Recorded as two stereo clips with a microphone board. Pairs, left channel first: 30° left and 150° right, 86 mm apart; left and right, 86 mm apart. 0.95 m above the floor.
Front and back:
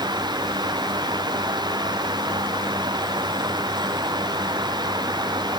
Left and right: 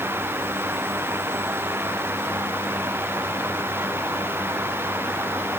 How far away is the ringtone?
I don't hear a ringtone.